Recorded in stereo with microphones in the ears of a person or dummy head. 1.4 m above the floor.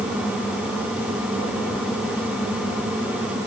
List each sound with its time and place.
Only background noise.